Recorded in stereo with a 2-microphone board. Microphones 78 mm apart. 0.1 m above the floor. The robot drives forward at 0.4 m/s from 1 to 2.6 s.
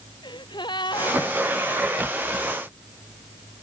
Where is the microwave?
I don't hear a microwave.